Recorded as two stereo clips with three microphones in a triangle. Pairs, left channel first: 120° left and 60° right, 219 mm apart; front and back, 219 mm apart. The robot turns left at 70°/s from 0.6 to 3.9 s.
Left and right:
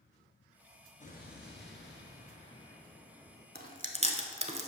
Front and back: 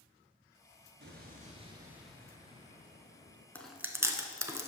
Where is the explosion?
165° left, 1.1 m; by 3.5 s 5° right, 1.1 m.